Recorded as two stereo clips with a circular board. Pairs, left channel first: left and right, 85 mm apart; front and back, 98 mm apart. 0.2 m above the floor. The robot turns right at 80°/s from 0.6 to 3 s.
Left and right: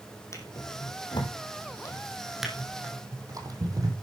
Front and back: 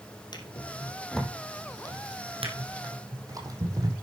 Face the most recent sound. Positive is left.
turn(degrees=-130)